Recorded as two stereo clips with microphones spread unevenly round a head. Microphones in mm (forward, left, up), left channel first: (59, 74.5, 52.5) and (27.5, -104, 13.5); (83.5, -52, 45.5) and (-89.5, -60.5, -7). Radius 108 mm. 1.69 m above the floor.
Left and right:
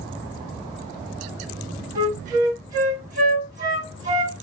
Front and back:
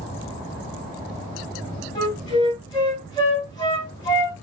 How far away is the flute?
About 2.5 m.